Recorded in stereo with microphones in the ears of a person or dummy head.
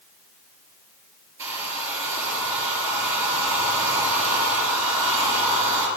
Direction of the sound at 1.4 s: 20° right (ahead or behind).